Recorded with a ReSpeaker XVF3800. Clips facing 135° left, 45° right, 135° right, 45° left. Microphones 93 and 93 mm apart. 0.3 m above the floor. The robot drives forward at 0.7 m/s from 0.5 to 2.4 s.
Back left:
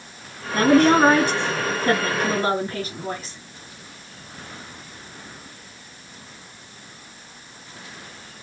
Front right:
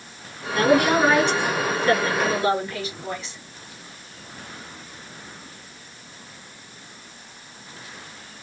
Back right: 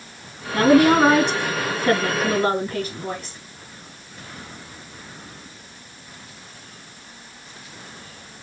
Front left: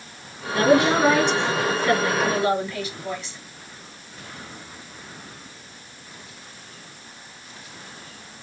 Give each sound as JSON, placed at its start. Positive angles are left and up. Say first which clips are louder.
{"t": 0.5, "sound": "a woman speaking", "louder": "back left 3 dB, back right 3 dB", "azimuth_deg": -175, "distance_m": 4.0}